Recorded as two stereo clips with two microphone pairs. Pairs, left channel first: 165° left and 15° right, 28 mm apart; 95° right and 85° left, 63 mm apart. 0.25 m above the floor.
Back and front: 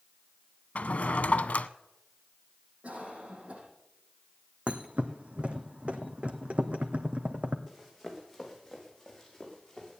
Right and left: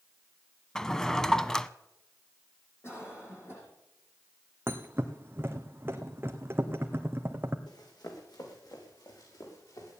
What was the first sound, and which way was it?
A drawer, 175° right.